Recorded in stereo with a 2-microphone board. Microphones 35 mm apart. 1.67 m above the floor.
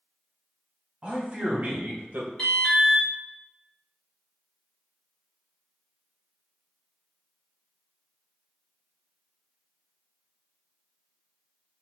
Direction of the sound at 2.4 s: 20° left (ahead or behind).